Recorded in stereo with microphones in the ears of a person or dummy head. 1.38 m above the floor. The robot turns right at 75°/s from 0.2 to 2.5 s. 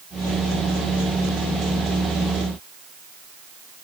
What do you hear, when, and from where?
Only background noise.